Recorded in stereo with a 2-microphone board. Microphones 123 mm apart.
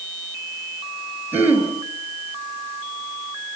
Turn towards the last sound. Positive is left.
turn(degrees=-15)  # may be behind; listen again after turning